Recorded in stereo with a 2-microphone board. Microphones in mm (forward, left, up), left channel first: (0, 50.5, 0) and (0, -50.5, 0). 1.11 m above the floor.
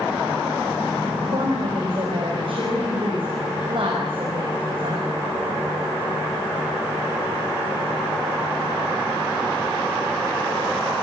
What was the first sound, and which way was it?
A woman speaking, 55° right (ahead or behind).